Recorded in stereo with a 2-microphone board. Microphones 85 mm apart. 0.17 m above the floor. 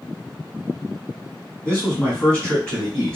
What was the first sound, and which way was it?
A man speaking, 15° left (ahead or behind).